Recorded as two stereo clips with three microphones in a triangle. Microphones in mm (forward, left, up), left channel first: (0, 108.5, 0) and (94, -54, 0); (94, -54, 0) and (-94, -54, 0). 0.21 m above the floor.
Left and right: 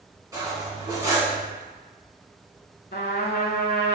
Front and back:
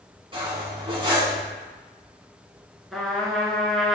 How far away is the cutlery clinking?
About 1.0 m.